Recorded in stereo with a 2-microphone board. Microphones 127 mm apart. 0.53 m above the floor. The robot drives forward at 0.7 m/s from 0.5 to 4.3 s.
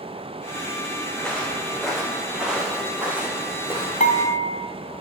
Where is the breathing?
No breathing in this recording.